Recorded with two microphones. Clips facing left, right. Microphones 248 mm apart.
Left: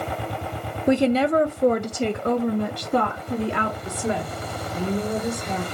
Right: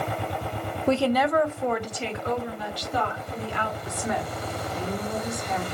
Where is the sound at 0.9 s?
10° left (ahead or behind), 0.6 m; by 3.8 s 60° left (ahead or behind), 2 m.